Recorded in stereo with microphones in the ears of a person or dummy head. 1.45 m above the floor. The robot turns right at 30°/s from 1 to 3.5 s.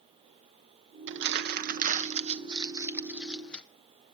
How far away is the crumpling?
About 1.1 m.